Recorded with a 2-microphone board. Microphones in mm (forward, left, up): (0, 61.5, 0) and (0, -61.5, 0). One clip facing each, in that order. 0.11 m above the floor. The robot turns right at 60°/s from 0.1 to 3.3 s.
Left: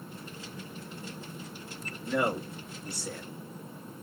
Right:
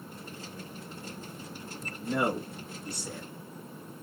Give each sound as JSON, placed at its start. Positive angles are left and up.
{"t": 2.0, "sound": "a man speaking", "azimuth_deg": -105, "distance_m": 1.3}